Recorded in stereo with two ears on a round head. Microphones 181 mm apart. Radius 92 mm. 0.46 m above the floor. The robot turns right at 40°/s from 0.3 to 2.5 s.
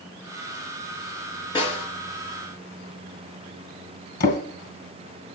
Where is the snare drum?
20° left (ahead or behind), 4 m; by 1.9 s 35° left (ahead or behind), 4 m.